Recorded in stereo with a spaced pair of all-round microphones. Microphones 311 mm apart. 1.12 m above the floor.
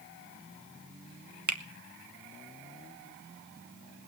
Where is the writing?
I don't hear writing.